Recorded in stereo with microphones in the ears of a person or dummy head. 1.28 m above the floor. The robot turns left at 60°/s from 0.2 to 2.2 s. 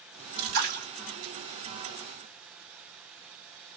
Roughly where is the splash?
Right.